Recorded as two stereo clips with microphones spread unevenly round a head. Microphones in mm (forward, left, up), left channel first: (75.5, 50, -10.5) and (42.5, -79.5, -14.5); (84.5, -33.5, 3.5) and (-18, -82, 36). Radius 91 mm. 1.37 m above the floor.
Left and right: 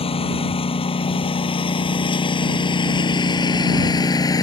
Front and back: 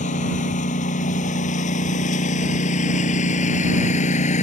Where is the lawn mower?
35° left; by 4.4 s 15° left.